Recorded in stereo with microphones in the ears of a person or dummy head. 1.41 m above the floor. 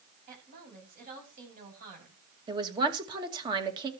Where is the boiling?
No boiling in this recording.